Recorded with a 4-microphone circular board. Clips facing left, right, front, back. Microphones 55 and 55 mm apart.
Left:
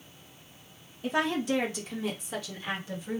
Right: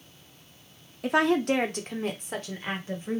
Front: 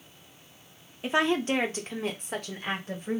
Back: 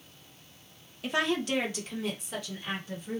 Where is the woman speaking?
70° right, 1.2 m; by 3.2 s 35° right, 2 m.